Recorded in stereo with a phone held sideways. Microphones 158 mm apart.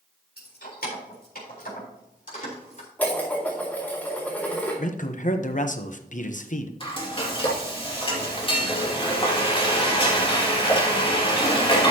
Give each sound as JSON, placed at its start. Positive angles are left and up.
{"t": 0.4, "sound": "keys jangling", "side_deg": 80, "distance_m": 4.0}
{"t": 3.0, "sound": "dishes clattering", "side_deg": 10, "distance_m": 4.0}
{"t": 4.8, "sound": "a man speaking", "side_deg": 55, "distance_m": 0.9}
{"t": 6.8, "sound": "frying", "side_deg": 35, "distance_m": 2.5}